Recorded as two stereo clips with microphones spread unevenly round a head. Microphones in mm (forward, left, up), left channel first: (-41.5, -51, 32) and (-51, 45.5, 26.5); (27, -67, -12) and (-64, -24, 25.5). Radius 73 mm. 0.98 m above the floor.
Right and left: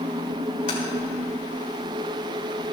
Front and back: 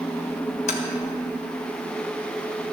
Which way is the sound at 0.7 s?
30° right.